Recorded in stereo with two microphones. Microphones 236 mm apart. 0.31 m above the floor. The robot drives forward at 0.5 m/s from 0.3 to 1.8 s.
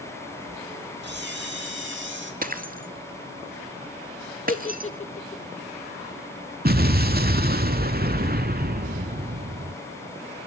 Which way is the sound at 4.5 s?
30° left (ahead or behind).